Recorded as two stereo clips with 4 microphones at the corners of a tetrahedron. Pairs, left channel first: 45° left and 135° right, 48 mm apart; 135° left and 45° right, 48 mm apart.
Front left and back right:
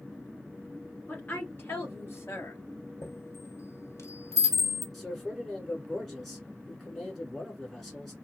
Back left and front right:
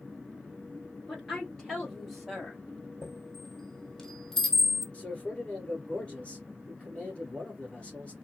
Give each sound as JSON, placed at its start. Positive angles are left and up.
{"t": 1.1, "sound": "a woman speaking", "azimuth_deg": 70, "distance_m": 1.3}
{"t": 3.0, "sound": "a chime", "azimuth_deg": 55, "distance_m": 1.4}
{"t": 4.9, "sound": "a man speaking", "azimuth_deg": 130, "distance_m": 1.6}